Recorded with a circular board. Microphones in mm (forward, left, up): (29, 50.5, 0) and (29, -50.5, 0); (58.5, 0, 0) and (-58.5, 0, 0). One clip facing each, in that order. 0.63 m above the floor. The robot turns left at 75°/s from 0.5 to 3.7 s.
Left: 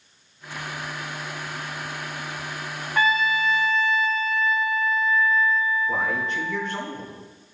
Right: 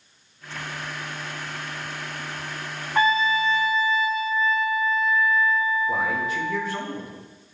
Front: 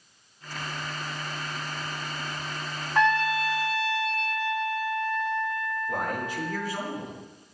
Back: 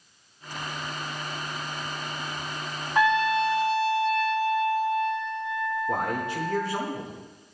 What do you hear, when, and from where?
3.0 s a trumpet: 100° right, 0.7 m; by 6.9 s 160° right, 0.7 m
5.9 s a man speaking: 175° right, 1.8 m